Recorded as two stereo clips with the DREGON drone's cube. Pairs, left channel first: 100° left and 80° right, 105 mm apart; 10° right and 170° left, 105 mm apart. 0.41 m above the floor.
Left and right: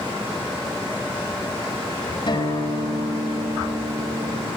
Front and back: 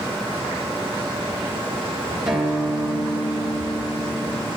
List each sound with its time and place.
2.3 s a guitar: 85° left, 2.5 m